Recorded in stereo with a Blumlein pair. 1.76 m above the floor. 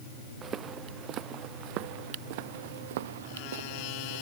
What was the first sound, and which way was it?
Footsteps, 25° right.